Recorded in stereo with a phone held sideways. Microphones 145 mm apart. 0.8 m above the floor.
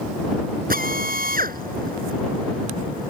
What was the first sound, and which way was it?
A drill, 85° right.